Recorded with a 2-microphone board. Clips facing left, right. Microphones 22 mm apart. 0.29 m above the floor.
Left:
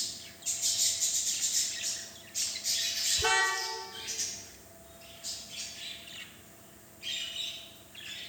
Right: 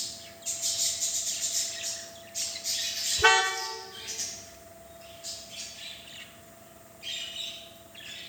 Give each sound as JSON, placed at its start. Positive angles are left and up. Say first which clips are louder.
{"t": 3.2, "sound": "a car horn", "louder": "right 7 dB", "side_deg": -60, "distance_m": 9.5}